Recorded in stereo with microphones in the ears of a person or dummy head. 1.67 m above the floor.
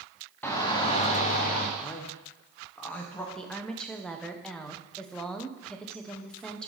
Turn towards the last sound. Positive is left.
turn(degrees=0)  # may be behind; listen again after turning